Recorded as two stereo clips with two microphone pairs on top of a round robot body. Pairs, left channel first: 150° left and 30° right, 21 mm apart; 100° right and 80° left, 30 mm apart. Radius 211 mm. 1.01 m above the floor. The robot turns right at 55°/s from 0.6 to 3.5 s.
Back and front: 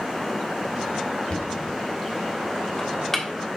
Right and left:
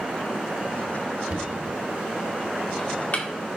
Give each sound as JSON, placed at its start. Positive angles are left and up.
{"t": 1.3, "sound": "knocking", "azimuth_deg": 120, "distance_m": 1.6}